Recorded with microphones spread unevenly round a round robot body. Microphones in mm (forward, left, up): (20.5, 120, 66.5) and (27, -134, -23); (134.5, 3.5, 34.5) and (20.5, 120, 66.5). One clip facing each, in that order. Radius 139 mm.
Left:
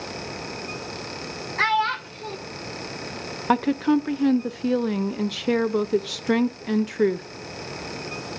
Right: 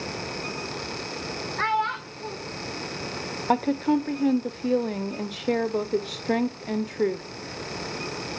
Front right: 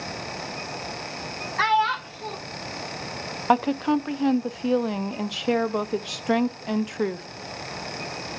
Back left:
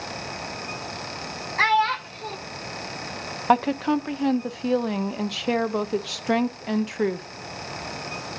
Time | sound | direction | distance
1.6 | a child speaking | 50° left | 1.3 m
3.5 | a woman speaking | 15° left | 0.6 m